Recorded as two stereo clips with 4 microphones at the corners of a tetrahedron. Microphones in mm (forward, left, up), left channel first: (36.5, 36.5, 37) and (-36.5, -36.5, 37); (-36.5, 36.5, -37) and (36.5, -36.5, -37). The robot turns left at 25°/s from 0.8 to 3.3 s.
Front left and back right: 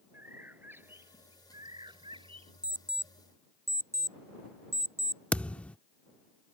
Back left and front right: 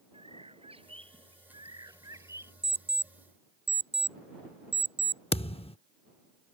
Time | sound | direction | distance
0.1 | a bird | 65° right | ?
2.6 | an alarm clock | 55° right | ?
5.3 | a thud | 125° left | ?